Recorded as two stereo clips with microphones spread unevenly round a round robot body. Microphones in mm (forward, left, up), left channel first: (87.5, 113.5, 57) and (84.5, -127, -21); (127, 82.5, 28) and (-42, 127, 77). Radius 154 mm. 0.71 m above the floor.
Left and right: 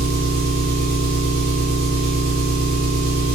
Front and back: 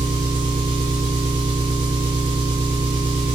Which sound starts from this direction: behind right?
An engine running, at 0.0 s.